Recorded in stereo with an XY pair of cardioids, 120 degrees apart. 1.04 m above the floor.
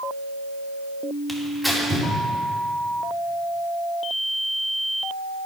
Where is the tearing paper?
5° left, 2 m.